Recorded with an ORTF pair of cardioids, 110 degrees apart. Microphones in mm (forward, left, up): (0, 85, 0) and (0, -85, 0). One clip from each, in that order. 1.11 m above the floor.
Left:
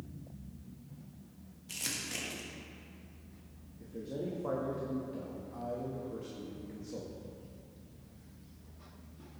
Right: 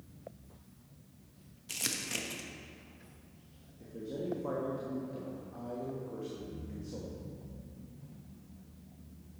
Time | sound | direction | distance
1.7 | crumpling | 25° right | 1.2 m
3.8 | a man speaking | 10° left | 1.3 m